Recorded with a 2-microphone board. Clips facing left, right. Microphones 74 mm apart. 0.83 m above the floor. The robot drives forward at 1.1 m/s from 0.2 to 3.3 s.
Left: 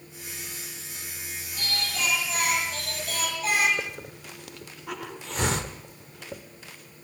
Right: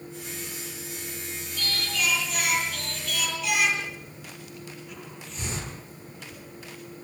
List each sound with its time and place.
1.6 s singing: 30° left (ahead or behind), 9.5 m; by 3.7 s 40° left (ahead or behind), 8 m
3.8 s a hiss: 80° left, 2 m